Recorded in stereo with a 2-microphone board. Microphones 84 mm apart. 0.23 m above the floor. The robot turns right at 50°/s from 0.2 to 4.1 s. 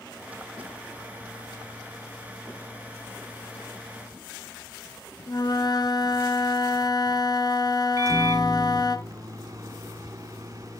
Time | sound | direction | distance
5.3 | a flute | 55° left (ahead or behind) | 1.4 m
8.0 | a microwave | 40° right (ahead or behind) | 1.9 m